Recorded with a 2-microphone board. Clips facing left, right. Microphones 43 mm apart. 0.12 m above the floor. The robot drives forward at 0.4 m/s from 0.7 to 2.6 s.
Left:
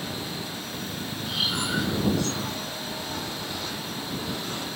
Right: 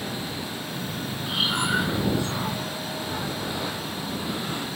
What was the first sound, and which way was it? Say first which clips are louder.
Breathing: right 4 dB; 20° right (ahead or behind).